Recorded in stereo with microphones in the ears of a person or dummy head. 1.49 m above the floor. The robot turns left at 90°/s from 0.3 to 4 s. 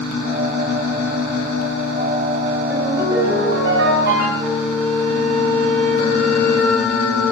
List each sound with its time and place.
2.7 s a ringtone: 10° left, 4 m; by 4.3 s 105° right, 4 m
4.4 s a flute: 5° right (ahead or behind), 1.9 m